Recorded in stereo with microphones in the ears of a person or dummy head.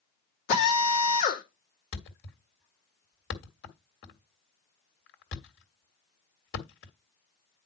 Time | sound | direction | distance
0.5 | a drill | 40° left (ahead or behind) | 3 m
1.9 | a thud | 55° left (ahead or behind) | 1.8 m